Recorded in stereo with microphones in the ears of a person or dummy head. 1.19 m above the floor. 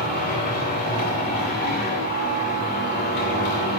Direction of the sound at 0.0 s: 50° left (ahead or behind).